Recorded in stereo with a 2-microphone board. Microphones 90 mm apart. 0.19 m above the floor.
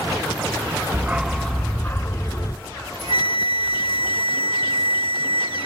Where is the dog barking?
25° right (ahead or behind), 0.7 m; by 2.5 s 40° left (ahead or behind), 1.2 m.